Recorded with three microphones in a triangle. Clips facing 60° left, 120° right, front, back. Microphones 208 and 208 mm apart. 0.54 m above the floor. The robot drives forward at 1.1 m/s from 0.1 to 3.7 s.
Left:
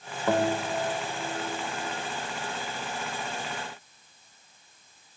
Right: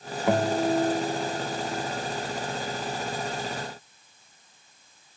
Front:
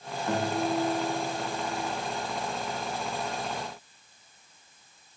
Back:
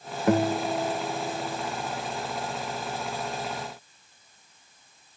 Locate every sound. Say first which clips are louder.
0.3 s a guitar: right 3 dB, back 5 dB; 165° left, 0.6 m; by 1.7 s 175° left, 2 m